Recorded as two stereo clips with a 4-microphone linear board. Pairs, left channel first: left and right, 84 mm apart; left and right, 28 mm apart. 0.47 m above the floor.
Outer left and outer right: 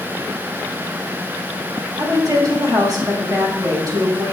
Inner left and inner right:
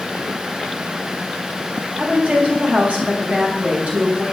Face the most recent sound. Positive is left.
turn(degrees=-55)  # may be behind; listen again after turning